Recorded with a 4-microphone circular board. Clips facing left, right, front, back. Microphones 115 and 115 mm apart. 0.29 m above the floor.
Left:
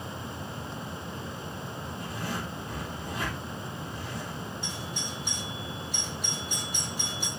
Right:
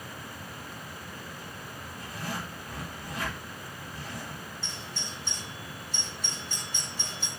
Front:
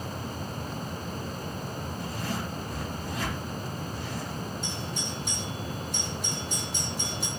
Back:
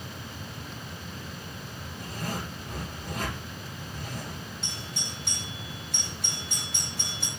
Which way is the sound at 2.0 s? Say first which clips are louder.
Left 1 dB, even; 155° left.